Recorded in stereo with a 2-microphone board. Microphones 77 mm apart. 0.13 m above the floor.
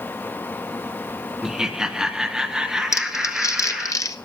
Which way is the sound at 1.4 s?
5° right (ahead or behind).